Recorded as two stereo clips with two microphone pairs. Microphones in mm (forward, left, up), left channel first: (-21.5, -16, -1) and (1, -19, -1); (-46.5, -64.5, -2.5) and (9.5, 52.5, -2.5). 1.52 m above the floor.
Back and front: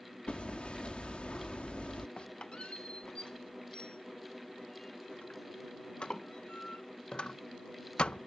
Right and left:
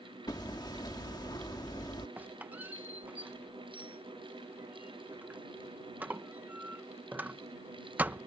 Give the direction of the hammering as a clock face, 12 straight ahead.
6 o'clock.